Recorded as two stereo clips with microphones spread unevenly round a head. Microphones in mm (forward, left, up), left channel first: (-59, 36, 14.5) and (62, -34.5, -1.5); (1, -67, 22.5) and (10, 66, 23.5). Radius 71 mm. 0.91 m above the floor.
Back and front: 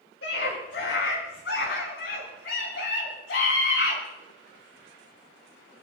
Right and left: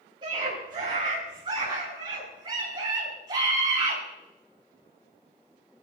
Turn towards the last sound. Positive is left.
turn(degrees=150)